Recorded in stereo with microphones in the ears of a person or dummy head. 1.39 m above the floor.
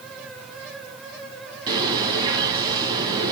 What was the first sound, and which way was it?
A bird, 30° right (ahead or behind).